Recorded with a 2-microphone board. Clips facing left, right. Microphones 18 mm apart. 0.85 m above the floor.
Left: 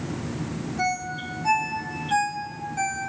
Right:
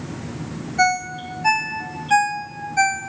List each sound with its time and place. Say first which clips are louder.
0.8 s a ringtone: right 8 dB; 70° right (ahead or behind), 0.8 m